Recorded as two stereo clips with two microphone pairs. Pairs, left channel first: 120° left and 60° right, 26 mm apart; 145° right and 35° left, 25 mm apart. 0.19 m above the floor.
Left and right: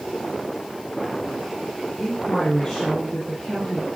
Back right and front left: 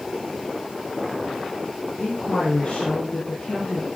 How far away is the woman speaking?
About 6.5 m.